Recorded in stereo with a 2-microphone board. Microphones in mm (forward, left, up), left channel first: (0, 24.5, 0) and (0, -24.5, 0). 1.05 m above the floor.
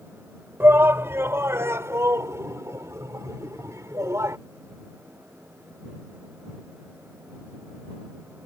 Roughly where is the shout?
Right.